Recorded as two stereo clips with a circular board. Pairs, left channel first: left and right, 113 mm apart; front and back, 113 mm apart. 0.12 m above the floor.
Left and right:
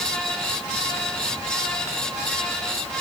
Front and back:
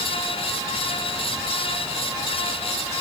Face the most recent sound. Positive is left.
No sound to turn to.